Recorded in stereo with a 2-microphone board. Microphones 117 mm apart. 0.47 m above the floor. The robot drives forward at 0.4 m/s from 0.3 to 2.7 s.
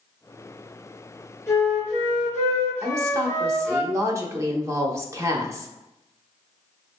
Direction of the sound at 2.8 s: 25° right (ahead or behind).